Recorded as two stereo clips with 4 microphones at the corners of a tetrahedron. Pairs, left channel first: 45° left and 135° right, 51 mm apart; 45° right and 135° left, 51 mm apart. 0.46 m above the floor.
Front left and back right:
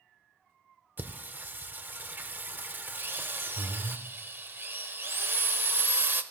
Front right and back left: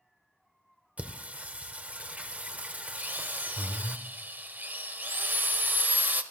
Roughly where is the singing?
Behind.